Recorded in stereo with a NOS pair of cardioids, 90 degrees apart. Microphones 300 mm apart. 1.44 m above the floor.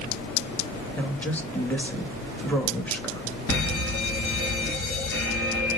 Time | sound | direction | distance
1.0 | a woman speaking | 5° left | 2.5 m
3.5 | a fire alarm | 50° left | 3.5 m